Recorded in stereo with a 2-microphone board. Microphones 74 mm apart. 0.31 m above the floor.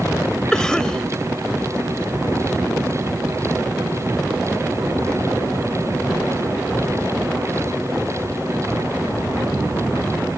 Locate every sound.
0.5 s a cough: 10° left (ahead or behind)